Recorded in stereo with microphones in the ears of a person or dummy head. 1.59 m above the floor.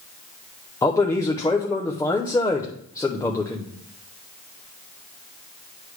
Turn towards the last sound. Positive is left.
turn(degrees=15)  # may be behind; listen again after turning